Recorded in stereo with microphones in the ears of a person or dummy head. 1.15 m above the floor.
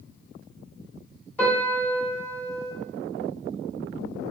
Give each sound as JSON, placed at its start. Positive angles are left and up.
{"t": 1.4, "sound": "a piano", "side_deg": 15, "distance_m": 1.8}